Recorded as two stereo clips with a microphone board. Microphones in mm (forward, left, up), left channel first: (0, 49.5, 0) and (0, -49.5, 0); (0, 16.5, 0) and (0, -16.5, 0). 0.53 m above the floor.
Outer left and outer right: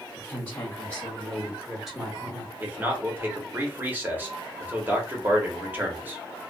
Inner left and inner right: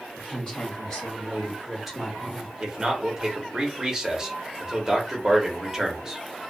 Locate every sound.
0.2 s a woman speaking: 30° left (ahead or behind), 1.5 m; by 2.5 s 20° right (ahead or behind), 1.3 m
2.6 s a man speaking: 20° right (ahead or behind), 1.0 m